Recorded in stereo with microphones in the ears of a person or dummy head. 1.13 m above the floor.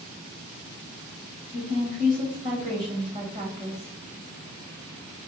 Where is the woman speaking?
25° right (ahead or behind), 1.4 m.